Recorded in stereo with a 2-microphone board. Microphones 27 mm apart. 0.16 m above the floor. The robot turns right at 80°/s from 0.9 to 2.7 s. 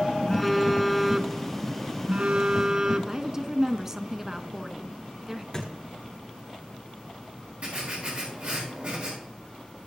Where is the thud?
20° left (ahead or behind), 7 m.